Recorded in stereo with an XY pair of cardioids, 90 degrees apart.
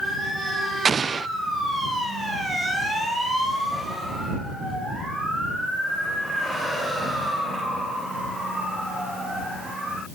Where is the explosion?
40° right.